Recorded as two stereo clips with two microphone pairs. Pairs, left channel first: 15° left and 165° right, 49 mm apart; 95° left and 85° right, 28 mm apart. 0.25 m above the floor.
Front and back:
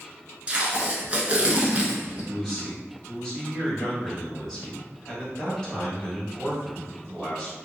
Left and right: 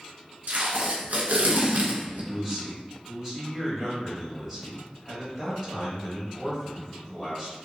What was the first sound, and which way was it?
Tape being pulled, 95° right.